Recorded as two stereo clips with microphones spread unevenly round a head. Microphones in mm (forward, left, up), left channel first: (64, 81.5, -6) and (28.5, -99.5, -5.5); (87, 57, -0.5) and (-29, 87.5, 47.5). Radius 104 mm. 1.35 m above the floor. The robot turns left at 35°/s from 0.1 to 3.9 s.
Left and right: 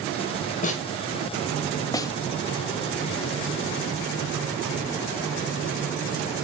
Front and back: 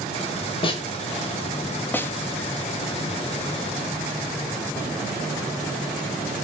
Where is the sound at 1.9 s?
100° left, 1.2 m; by 2.1 s 95° left, 1.2 m.